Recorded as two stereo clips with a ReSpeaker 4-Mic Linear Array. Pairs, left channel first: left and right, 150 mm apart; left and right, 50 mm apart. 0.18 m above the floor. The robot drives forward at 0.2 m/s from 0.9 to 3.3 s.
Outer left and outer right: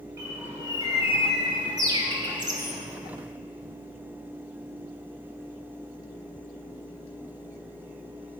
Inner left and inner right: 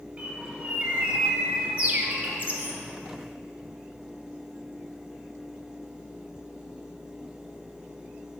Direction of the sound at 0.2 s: 20° right (ahead or behind).